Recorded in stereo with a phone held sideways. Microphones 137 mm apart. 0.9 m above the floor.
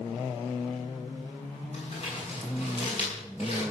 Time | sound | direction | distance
1.7 | crumpling | 50° left (ahead or behind) | 8.5 m